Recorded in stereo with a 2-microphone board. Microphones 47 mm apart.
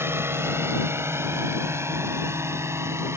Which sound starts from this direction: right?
A drone, at 0.0 s.